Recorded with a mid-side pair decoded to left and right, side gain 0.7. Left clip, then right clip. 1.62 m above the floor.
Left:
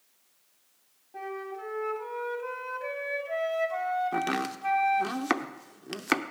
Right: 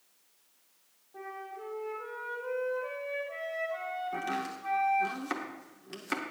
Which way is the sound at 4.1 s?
60° left.